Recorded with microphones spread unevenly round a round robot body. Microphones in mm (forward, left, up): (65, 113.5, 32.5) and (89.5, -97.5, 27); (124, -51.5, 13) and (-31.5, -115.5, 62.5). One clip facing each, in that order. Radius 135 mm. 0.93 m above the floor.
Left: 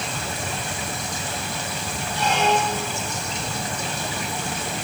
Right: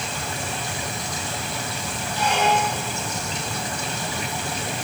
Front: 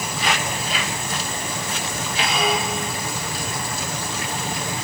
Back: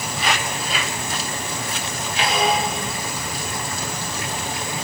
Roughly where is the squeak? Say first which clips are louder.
Even, back 2 dB; behind.